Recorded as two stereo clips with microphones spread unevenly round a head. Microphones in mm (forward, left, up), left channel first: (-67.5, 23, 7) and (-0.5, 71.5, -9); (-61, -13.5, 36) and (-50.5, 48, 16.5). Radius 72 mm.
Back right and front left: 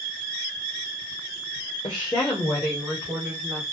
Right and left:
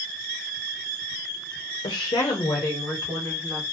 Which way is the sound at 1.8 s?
90° right.